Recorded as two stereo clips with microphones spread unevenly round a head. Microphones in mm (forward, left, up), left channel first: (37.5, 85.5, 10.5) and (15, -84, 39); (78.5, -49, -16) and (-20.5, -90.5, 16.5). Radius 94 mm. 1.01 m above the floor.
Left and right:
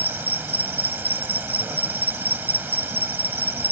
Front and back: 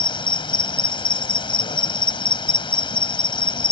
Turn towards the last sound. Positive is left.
turn(degrees=-25)